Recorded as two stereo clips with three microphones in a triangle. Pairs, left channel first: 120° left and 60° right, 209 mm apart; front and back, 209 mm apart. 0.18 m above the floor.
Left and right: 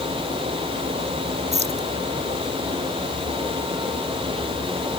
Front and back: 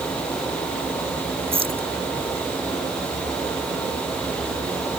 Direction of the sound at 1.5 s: 120° right.